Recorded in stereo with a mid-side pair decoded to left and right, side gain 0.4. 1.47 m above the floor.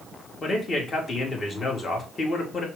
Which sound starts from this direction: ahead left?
A man speaking, at 0.4 s.